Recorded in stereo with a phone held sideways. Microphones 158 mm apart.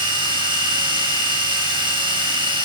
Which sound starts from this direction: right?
A machine running, at 0.0 s.